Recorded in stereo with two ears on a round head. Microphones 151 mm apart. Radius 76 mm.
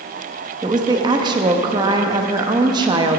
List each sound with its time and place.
0.6 s a woman speaking: 25° right (ahead or behind), 0.6 m